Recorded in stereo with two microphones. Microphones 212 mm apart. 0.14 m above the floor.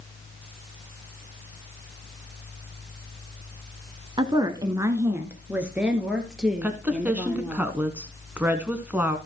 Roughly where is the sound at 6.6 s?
Centre.